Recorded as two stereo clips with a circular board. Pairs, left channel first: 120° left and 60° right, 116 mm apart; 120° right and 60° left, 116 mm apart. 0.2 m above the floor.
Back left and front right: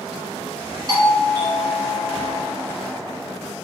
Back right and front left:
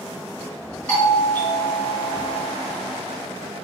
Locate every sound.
0.9 s a doorbell: 45° right, 2 m